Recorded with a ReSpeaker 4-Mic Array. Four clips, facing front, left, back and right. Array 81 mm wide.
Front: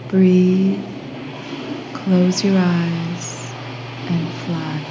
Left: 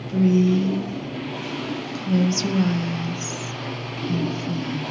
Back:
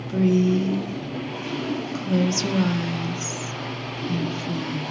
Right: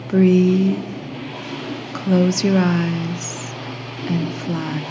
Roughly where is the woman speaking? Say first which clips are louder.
Right 4 dB, front 6 dB; ahead right.